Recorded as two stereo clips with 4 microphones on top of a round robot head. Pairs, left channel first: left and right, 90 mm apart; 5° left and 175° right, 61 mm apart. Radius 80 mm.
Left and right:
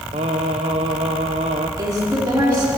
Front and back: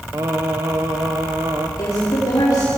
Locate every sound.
0.1 s singing: 120° right, 1.1 m
1.8 s a woman speaking: 30° right, 4 m